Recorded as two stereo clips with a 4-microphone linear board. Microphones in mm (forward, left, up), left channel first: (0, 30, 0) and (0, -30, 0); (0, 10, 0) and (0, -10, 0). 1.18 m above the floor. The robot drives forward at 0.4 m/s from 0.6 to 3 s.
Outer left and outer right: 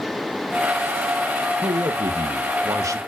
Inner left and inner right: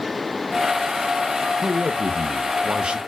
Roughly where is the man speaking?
Right.